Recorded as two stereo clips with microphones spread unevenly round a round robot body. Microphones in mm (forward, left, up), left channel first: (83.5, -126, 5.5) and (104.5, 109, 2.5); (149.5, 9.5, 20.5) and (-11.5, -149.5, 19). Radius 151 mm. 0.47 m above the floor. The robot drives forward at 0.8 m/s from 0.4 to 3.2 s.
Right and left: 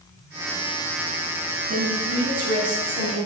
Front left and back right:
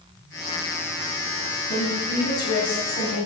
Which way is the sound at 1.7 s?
65° left.